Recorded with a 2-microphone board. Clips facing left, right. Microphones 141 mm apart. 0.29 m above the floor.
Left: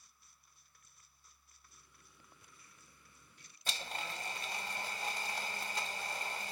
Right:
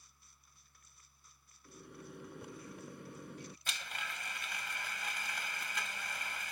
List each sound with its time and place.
1.6 s a microwave: 70° right (ahead or behind)
3.7 s a blender: 35° left (ahead or behind)